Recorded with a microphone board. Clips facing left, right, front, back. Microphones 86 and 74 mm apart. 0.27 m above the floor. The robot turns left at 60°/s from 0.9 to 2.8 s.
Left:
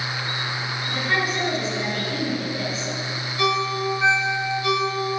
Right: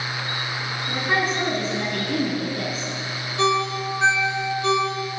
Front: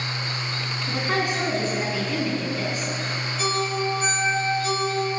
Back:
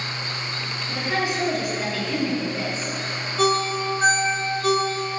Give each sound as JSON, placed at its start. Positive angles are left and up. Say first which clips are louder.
{"t": 0.9, "sound": "a woman speaking", "louder": "right 1 dB, even", "azimuth_deg": -15, "distance_m": 3.0}
{"t": 3.4, "sound": "a ringtone", "louder": "right 1 dB, back 4 dB", "azimuth_deg": -150, "distance_m": 2.0}